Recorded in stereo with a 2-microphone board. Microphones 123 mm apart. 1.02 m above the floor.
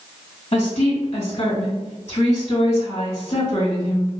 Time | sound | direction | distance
0.5 | a woman speaking | 60° left (ahead or behind) | 1.8 m